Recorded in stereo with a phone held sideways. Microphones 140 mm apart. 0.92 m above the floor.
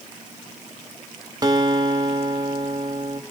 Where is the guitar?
30° right (ahead or behind), 1.3 m.